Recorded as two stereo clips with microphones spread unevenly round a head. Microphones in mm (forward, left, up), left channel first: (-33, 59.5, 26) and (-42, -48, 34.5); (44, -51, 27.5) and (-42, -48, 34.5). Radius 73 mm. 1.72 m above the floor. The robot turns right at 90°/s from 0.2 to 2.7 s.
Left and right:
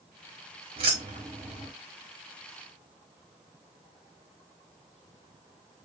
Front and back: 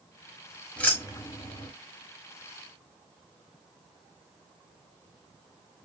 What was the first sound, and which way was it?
Keys jangling, 80° right.